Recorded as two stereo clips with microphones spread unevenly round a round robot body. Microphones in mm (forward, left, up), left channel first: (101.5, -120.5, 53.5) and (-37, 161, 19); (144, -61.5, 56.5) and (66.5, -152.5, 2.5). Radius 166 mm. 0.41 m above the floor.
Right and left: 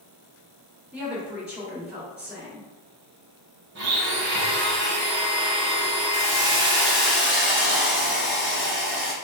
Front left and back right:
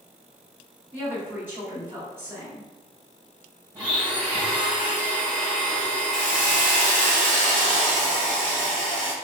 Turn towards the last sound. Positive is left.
turn(degrees=-155)